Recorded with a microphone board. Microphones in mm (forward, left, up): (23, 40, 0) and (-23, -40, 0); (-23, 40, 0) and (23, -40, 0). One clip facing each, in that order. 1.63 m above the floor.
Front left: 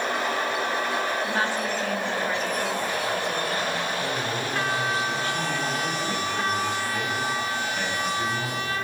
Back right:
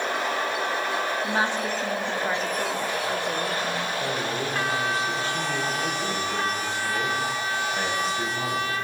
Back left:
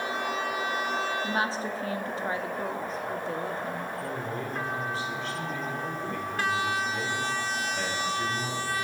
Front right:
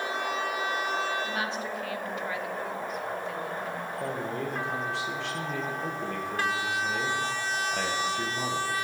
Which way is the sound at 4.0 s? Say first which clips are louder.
Back right 1 dB, front right 1 dB; 55° right.